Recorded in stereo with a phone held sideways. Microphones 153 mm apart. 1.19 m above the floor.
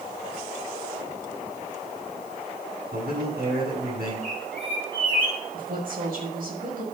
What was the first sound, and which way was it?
A man speaking, 90° right.